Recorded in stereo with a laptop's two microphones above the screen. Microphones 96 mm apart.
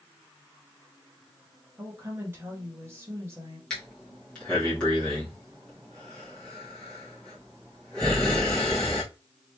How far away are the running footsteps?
No running footsteps in this recording.